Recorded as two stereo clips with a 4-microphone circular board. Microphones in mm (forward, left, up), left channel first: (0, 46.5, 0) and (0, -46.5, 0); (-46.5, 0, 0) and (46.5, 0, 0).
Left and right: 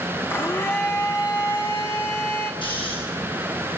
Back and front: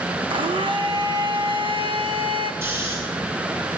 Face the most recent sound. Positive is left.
turn(degrees=65)